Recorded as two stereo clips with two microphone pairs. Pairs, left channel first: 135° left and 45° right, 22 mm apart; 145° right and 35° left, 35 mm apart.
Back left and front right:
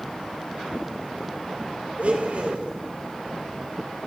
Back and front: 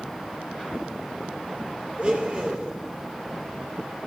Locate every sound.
2.0 s a blender: 25° right, 3 m